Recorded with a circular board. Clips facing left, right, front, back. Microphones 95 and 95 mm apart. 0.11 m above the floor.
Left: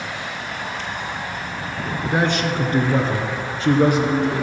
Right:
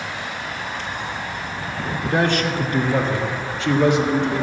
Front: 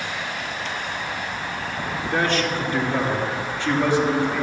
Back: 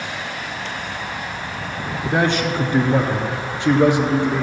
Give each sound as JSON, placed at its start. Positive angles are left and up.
{"t": 2.0, "sound": "a man speaking", "azimuth_deg": 145, "distance_m": 1.3}